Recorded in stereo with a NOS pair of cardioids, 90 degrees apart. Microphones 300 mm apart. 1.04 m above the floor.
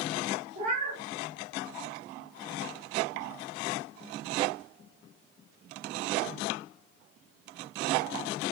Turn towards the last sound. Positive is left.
turn(degrees=-60)